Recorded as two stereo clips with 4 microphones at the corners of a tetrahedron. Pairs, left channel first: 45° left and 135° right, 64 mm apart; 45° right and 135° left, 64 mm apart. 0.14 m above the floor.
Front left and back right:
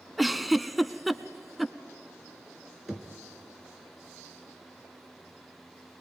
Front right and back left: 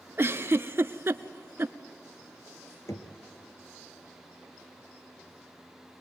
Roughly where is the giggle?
Behind left.